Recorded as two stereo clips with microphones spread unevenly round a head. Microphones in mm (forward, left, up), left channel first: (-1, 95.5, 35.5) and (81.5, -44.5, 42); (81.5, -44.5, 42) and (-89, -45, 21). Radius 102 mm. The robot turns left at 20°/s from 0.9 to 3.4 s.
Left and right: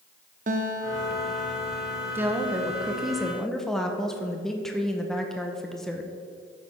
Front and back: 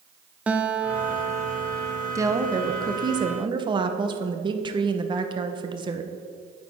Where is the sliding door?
I don't hear a sliding door.